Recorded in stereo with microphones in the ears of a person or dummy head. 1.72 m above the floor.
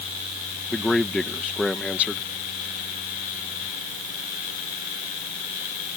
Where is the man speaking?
15° left (ahead or behind).